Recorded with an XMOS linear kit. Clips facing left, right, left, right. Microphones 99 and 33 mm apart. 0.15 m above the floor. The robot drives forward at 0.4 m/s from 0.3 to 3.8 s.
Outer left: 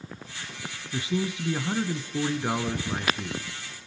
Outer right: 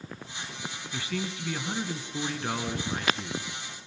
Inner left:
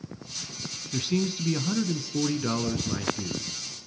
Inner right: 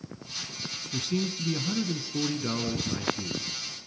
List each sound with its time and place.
0.9 s a man speaking: 25° left (ahead or behind), 1.1 m; by 3.8 s 15° left (ahead or behind), 1.6 m